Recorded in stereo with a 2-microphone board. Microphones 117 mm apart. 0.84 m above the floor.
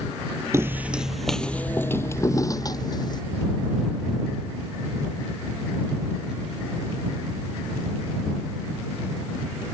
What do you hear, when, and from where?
0.5 s footsteps: 25° right (ahead or behind); by 3.2 s 35° left (ahead or behind)